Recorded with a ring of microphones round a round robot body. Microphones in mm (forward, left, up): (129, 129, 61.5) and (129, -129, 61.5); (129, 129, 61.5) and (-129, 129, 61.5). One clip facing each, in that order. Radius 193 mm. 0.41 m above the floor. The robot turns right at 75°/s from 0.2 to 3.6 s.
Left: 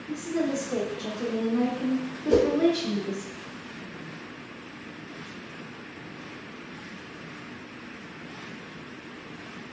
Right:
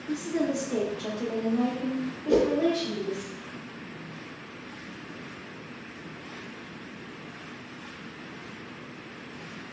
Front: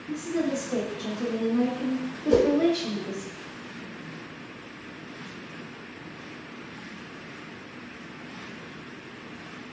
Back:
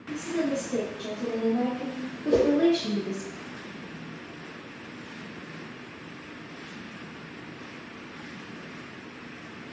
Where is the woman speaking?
65° right, 1.1 m; by 3.3 s 170° left, 1.1 m.